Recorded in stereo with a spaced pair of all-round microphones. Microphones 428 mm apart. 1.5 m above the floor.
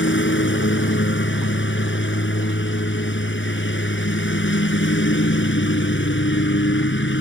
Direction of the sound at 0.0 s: 25° left (ahead or behind).